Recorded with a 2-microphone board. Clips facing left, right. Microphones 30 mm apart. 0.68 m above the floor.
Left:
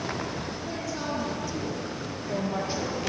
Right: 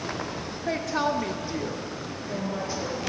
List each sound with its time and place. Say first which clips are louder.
0.7 s a woman speaking: right 9 dB; 65° right (ahead or behind), 1.8 m; by 3.1 s 35° left (ahead or behind), 1.9 m